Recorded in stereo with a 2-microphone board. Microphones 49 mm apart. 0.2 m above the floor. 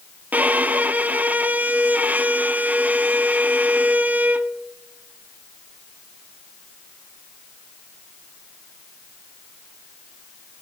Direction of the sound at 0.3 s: 35° right (ahead or behind).